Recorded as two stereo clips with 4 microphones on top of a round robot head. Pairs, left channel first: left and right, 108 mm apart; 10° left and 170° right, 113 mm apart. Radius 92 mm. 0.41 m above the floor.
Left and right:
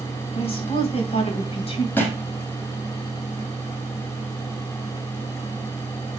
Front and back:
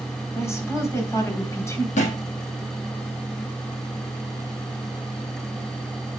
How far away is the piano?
No piano in this recording.